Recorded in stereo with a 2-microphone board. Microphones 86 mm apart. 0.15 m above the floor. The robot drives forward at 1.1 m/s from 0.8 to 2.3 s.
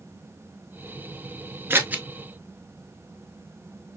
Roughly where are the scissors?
Right.